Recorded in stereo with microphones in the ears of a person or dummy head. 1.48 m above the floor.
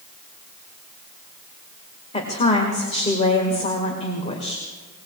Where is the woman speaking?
30° left (ahead or behind), 1.9 m.